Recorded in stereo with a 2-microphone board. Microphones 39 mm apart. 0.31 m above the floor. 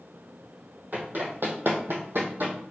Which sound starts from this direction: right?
Running footsteps, at 0.9 s.